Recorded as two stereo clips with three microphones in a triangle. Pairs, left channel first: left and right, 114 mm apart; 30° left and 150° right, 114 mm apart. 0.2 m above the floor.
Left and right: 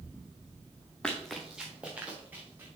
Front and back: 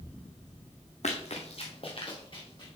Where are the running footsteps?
10° left, 1.1 m; by 2.7 s 15° right, 2.5 m.